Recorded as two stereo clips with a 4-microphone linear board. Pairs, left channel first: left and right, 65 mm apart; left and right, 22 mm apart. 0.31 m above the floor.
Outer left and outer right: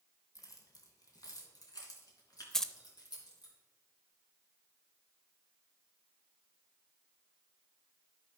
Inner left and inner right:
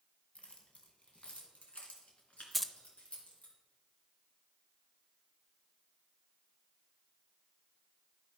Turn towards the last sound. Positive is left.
turn(degrees=10)  # may be behind; listen again after turning